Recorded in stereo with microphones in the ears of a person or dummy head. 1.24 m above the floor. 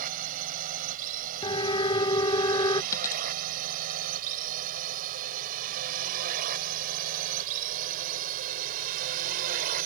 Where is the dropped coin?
15° left (ahead or behind).